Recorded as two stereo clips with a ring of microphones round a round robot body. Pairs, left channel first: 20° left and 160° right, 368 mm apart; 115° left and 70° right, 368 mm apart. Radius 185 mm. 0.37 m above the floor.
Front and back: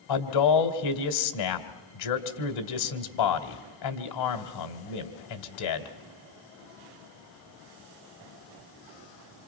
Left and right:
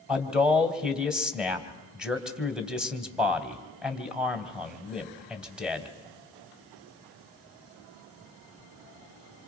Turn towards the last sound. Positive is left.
turn(degrees=20)